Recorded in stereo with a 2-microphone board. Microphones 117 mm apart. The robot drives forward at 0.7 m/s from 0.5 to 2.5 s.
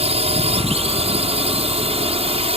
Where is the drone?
60° right (ahead or behind); by 2.6 s 55° right (ahead or behind).